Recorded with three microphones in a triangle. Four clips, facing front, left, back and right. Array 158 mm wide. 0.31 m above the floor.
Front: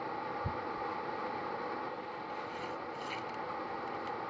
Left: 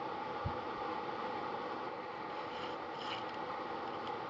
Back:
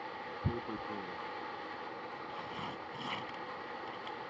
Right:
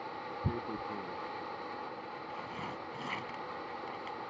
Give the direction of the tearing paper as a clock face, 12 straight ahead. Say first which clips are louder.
Right 2 dB, front 2 dB; 4 o'clock.